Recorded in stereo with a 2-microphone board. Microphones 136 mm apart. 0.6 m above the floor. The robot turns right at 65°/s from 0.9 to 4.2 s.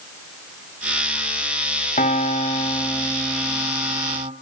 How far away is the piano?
About 2.0 m.